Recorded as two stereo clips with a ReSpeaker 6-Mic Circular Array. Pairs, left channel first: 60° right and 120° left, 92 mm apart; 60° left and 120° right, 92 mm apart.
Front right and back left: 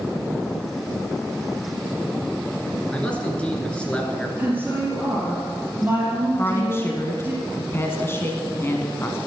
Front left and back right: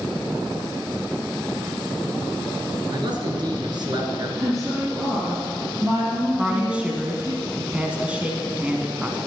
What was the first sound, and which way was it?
A man speaking, 135° right.